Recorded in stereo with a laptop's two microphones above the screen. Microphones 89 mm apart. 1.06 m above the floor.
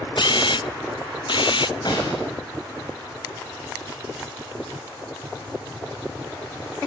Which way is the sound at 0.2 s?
60° left (ahead or behind).